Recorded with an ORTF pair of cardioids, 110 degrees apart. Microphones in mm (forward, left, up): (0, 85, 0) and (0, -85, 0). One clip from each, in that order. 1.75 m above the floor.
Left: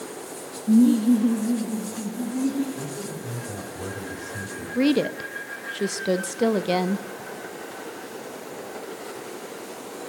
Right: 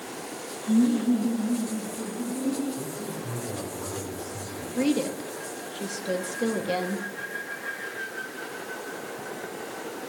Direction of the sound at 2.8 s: 25° left.